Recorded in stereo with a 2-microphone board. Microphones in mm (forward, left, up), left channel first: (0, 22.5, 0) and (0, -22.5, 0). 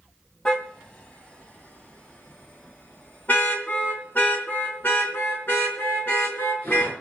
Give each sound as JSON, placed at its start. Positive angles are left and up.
{"t": 0.5, "sound": "a car horn", "side_deg": 25, "distance_m": 2.5}